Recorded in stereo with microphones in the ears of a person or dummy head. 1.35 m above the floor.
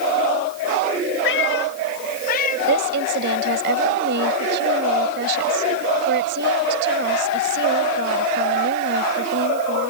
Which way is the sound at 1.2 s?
65° left (ahead or behind).